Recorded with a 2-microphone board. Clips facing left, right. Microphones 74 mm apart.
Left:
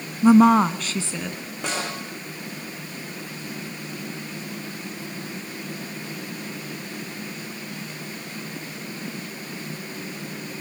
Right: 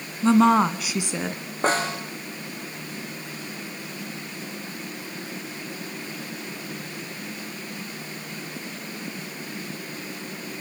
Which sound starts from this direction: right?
A snare drum, at 1.6 s.